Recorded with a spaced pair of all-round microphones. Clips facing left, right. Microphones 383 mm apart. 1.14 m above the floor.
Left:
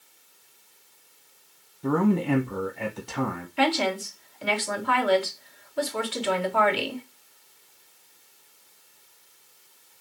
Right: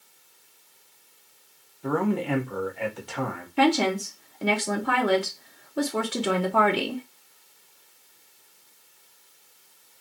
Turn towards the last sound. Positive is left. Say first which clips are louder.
# right 4 dB
turn(degrees=-60)  # may be behind; listen again after turning